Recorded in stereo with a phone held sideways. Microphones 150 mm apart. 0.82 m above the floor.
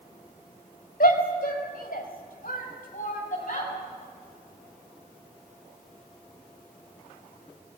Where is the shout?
80° left, 4.5 m; by 3.7 s 55° left (ahead or behind), 6.5 m.